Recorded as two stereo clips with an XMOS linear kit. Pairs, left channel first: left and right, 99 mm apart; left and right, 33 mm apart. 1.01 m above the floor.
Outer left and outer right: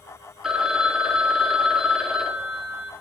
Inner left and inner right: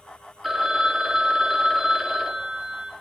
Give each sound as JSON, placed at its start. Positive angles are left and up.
{"t": 0.4, "sound": "a phone ringing", "side_deg": -5, "distance_m": 1.2}